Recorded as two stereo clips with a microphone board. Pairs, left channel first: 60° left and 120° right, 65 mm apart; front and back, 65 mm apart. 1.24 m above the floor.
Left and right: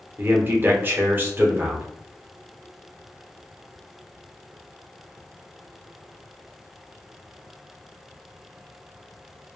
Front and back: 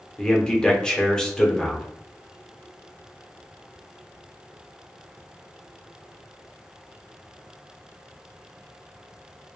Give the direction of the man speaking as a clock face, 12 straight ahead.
2 o'clock.